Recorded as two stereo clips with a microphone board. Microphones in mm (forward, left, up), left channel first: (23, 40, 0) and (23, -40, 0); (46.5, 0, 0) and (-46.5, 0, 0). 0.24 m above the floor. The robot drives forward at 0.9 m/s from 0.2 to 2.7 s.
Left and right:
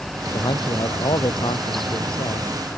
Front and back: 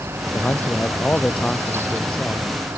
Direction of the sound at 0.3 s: 70° left.